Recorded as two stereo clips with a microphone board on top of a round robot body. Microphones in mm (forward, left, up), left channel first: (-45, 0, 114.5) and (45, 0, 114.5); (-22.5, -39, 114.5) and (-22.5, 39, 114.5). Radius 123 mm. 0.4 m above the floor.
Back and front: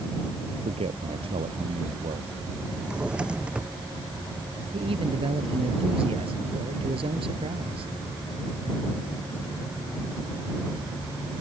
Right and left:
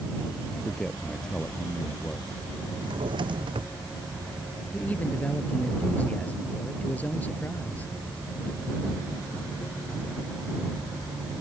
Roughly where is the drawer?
Left.